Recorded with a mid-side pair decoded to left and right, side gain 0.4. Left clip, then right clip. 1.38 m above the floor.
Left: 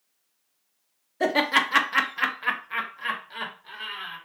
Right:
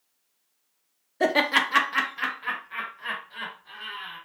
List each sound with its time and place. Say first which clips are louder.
1.2 s laughter: even; 10° right, 0.6 m; by 4.2 s 80° left, 1.5 m